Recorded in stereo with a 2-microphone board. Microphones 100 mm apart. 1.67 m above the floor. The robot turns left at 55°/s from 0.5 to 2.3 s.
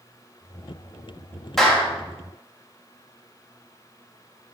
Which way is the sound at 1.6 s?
Centre (ahead or behind).